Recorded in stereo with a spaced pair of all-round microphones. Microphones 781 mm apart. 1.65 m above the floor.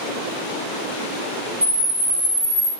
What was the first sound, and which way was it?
A camera shutter, 20° right (ahead or behind).